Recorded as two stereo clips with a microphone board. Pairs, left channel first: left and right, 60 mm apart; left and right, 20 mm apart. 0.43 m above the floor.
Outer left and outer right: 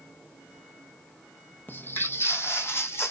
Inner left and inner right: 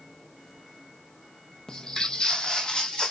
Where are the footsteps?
35° left (ahead or behind), 0.6 m; by 3.1 s 45° left (ahead or behind), 1.3 m.